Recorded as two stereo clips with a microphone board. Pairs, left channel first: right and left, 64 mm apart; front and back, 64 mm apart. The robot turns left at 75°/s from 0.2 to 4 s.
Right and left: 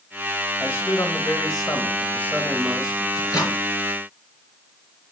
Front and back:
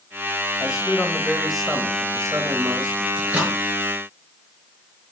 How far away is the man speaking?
About 1.6 m.